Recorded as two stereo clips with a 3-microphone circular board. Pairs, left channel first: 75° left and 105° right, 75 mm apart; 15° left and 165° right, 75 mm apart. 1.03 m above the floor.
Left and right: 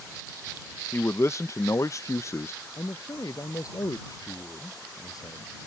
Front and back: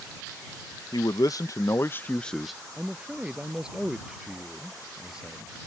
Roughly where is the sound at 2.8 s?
Behind left.